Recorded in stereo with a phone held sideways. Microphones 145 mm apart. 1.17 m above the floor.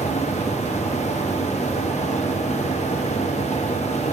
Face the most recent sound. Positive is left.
turn(degrees=50)  # may be behind; listen again after turning